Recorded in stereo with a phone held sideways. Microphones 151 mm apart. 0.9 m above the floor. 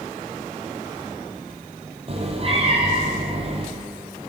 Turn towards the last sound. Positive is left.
turn(degrees=-40)  # may be behind; listen again after turning